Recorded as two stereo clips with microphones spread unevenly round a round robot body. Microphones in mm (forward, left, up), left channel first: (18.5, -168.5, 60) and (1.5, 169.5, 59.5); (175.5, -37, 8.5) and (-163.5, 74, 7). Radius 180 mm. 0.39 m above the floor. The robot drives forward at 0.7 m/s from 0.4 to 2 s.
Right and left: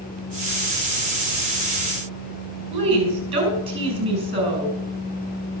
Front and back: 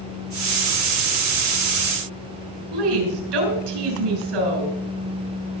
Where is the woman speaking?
165° left, 6 m.